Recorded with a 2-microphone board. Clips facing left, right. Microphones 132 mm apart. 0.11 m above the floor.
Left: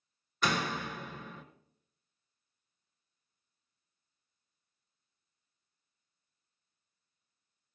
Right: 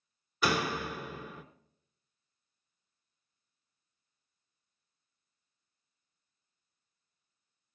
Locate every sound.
0.4 s a door slam: 5° right (ahead or behind), 1.1 m